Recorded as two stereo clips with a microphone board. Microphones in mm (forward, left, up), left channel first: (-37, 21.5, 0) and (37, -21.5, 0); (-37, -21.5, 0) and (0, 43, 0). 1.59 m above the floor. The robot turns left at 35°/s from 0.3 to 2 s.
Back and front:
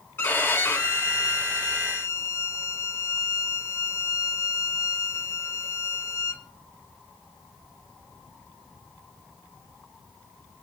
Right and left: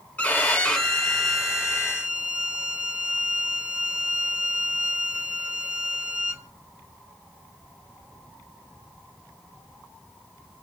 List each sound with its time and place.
0.2 s a violin: 175° right, 1.2 m; by 6.4 s 125° left, 1.2 m